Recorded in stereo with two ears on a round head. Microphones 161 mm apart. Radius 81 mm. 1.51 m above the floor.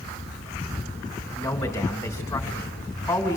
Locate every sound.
1.3 s a man speaking: 20° left (ahead or behind), 3 m